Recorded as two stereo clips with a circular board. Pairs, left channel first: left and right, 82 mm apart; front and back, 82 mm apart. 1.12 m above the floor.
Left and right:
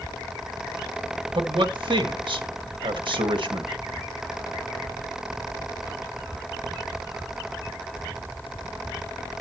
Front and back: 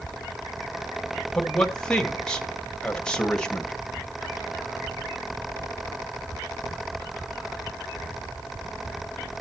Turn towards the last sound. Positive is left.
turn(degrees=-80)